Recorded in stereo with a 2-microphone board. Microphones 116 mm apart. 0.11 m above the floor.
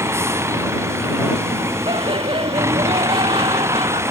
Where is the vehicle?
20° right (ahead or behind).